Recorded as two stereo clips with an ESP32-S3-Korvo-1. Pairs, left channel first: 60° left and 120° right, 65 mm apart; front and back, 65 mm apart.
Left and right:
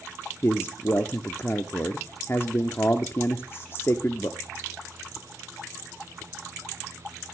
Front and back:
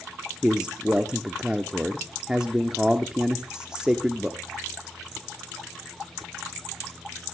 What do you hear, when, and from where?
0.4 s a man speaking: 105° left, 0.9 m